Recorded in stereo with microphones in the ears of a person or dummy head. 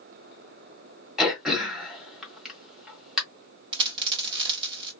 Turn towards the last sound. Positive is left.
turn(degrees=-20)  # may be behind; listen again after turning